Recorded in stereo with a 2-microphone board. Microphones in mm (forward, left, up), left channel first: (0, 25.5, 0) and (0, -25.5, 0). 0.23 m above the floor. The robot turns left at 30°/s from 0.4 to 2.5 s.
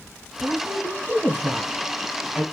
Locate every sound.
0.4 s a woman speaking: 20° right (ahead or behind), 1.1 m; by 2.4 s 5° right (ahead or behind), 1.1 m